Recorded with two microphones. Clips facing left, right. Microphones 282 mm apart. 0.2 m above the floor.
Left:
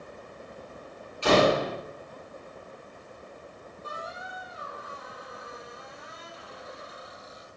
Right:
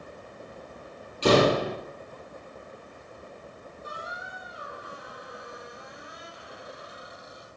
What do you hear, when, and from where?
1.2 s a door slam: 45° right (ahead or behind), 4 m
3.8 s a squeak: 15° right (ahead or behind), 3 m